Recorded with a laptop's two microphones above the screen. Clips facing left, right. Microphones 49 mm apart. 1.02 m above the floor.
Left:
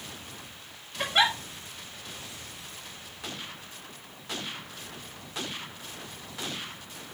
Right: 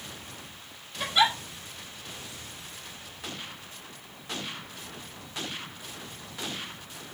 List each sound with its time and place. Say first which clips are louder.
1.0 s a giggle: even; 45° left (ahead or behind), 2 m